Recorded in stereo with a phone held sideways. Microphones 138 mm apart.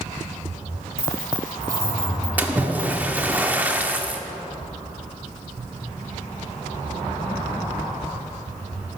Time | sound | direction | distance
1.0 | keys jangling | 75° left (ahead or behind) | 2.5 m
2.4 | a splash | 10° right (ahead or behind) | 0.8 m